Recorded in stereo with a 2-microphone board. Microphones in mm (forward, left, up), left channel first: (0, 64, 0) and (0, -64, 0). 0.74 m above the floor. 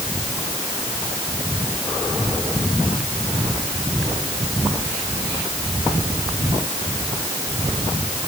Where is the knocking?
No knocking in this recording.